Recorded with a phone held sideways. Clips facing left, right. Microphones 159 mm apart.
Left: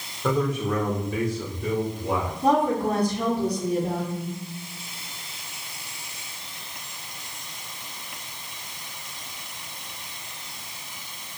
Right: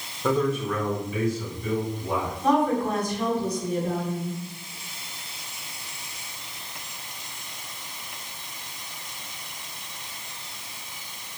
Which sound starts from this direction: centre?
A man speaking, at 0.2 s.